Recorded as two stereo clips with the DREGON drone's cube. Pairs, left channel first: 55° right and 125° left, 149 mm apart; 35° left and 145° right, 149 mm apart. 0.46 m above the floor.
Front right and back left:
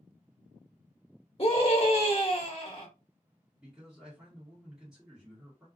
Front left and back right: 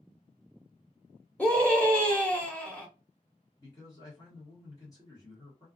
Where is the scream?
40° right, 0.9 m.